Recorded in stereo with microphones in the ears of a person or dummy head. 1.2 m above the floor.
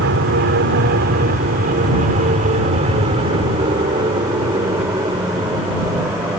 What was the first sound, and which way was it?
An aircraft, 55° right (ahead or behind).